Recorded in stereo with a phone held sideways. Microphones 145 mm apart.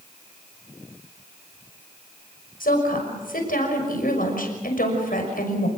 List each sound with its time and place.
2.6 s a woman speaking: 80° left, 6 m